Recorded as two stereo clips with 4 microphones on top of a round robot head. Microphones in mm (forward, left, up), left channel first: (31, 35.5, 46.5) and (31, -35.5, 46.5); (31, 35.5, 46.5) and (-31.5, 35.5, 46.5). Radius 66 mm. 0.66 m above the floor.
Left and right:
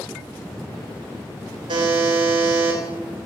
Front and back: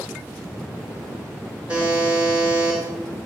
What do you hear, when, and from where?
1.7 s a buzzer: 105° right, 3.5 m